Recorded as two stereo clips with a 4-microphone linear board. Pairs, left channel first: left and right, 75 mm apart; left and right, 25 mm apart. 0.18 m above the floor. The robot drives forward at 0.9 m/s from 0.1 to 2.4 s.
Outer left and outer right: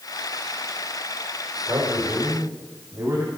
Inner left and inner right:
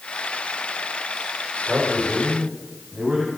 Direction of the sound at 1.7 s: 40° right (ahead or behind).